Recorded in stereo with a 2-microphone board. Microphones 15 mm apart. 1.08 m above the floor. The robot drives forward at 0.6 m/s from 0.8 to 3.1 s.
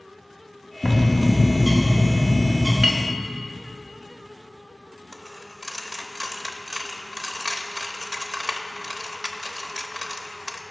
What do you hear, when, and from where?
0.8 s a bird: 40° left (ahead or behind), 1.1 m; by 2.7 s 20° left (ahead or behind), 2 m
2.8 s a clink: 55° right (ahead or behind), 0.7 m; by 3.1 s 45° right (ahead or behind), 0.8 m
5.1 s a dropped coin: 55° right (ahead or behind), 0.6 m